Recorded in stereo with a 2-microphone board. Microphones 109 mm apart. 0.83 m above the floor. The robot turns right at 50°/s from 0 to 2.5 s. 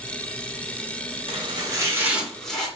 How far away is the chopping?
About 1.2 m.